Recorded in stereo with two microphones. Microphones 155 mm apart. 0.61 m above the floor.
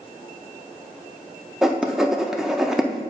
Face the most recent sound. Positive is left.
turn(degrees=0)  # may be behind; listen again after turning